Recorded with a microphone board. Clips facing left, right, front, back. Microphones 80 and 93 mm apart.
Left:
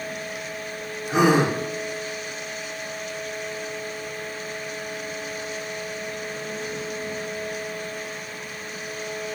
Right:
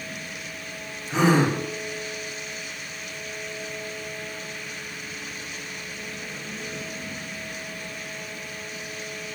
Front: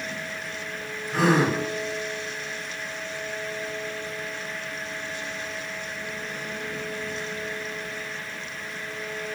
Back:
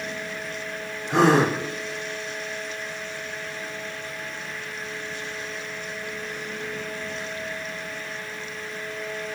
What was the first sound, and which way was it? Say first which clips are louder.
A gasp: left 2 dB, back 3 dB; 170° left.